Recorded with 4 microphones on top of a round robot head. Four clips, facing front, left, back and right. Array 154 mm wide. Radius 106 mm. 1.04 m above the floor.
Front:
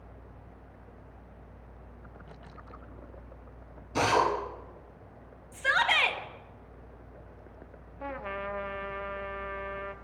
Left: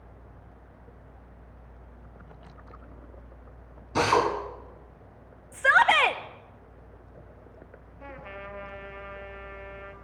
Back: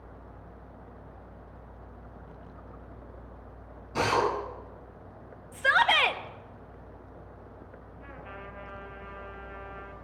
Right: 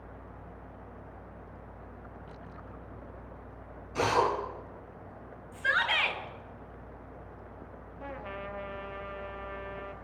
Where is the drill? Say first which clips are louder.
Left 4 dB, front 1 dB; 80° left, 9 m.